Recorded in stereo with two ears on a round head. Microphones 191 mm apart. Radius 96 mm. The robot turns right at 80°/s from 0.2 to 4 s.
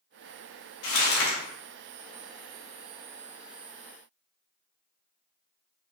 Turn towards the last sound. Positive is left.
turn(degrees=-30)